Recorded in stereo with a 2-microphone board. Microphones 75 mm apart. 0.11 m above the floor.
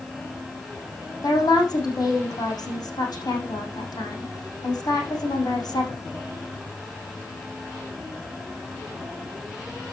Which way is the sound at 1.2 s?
65° left (ahead or behind).